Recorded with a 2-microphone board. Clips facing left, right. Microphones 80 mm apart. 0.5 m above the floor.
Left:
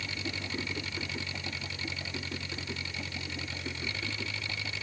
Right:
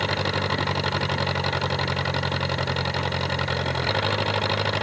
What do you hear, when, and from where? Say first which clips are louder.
0.0 s an engine running: right 14 dB; 65° right (ahead or behind)